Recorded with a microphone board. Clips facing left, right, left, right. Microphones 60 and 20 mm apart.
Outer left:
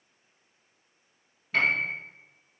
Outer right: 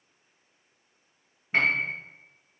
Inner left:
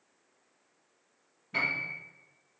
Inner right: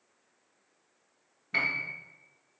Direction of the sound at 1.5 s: 25° right (ahead or behind).